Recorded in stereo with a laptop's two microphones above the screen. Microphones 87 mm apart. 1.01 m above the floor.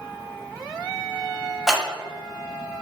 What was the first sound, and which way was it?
Scissors, 5° left (ahead or behind).